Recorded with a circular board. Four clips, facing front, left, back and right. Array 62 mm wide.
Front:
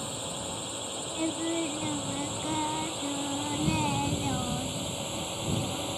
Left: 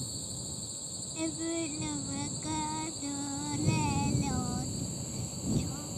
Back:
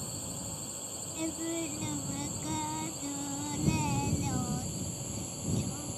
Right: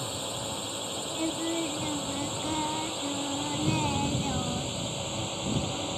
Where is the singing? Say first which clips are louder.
Right 3 dB, front 4 dB; 30° right.